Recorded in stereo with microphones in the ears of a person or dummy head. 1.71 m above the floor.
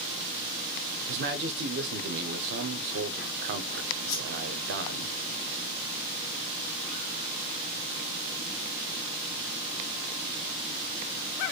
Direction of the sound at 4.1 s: 70° left (ahead or behind).